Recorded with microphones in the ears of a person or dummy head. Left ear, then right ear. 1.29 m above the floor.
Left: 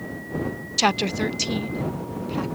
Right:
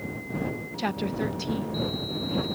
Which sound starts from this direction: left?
A woman speaking, at 0.8 s.